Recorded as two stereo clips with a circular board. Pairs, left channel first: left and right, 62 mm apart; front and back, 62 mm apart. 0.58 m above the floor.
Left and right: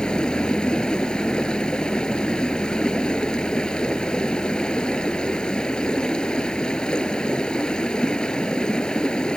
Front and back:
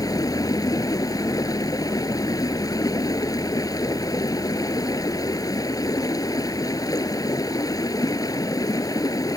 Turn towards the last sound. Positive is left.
turn(degrees=15)